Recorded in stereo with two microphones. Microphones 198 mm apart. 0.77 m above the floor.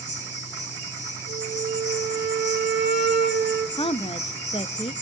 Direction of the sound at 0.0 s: 60° left (ahead or behind).